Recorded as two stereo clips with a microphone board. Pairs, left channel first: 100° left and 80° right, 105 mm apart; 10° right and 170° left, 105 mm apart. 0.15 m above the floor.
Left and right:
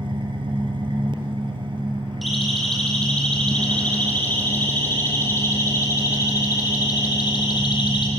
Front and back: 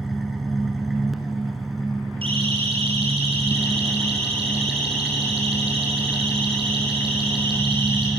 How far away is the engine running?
About 2.5 m.